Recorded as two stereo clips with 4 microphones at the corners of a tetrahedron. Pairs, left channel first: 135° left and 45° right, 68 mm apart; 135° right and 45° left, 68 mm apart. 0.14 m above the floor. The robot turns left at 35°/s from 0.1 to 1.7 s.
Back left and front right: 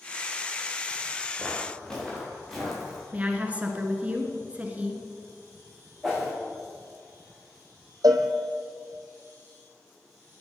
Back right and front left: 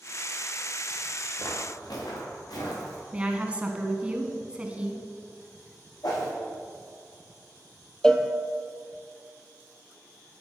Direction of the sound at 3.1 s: 5° right.